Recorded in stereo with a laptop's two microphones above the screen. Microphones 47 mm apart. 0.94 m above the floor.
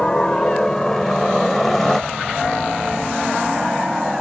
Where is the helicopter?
20° left (ahead or behind); by 4.2 s 5° right (ahead or behind).